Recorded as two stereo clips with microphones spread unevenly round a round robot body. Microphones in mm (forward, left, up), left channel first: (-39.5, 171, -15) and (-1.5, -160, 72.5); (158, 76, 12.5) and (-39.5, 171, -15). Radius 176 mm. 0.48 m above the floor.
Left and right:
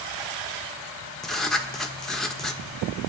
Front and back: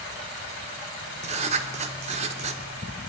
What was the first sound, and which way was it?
Writing, 160° left.